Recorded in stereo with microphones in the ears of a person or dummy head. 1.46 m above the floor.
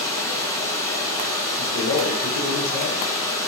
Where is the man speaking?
60° left (ahead or behind), 1.0 m.